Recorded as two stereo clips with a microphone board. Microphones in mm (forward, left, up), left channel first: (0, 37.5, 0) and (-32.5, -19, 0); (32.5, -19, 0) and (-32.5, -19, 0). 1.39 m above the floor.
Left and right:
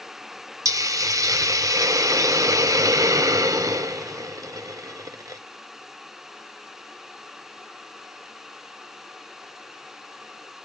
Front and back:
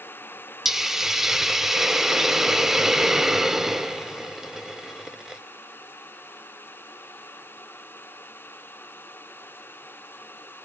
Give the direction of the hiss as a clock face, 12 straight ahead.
3 o'clock.